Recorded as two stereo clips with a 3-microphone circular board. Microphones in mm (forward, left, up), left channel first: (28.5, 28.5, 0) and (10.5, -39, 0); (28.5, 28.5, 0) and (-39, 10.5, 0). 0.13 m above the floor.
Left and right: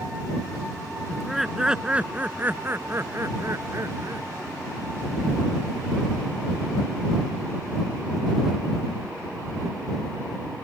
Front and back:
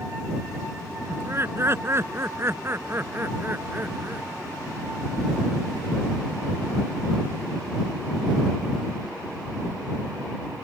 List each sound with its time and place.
1.1 s laughter: 165° left; by 4.3 s 110° right